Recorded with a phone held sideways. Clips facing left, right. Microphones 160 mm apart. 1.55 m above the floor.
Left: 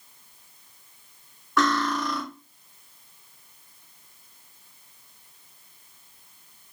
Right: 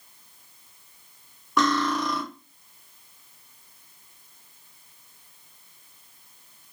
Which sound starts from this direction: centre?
Cutlery clinking, at 1.6 s.